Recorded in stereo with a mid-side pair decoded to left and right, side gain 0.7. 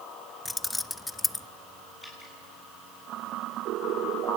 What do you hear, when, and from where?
0.5 s keys jangling: 10° left, 0.7 m
2.0 s dripping: 10° left, 10 m